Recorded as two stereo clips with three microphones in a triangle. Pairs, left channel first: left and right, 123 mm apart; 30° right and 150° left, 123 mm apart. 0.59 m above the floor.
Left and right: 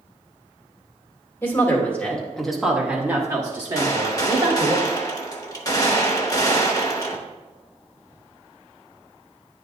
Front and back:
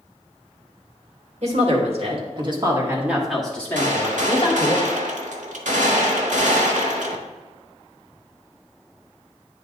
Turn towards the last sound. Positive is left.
turn(degrees=150)